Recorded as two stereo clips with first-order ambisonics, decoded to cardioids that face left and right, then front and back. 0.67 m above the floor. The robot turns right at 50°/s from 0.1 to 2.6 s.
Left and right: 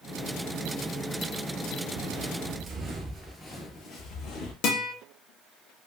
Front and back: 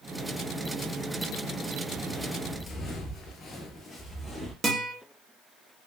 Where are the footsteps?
95° right, 1.0 m; by 4.5 s 85° left, 1.0 m.